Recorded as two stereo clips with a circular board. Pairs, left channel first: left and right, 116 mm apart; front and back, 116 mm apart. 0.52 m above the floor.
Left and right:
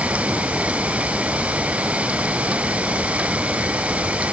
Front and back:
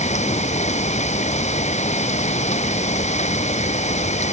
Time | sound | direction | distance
0.0 | an insect | 10° right | ?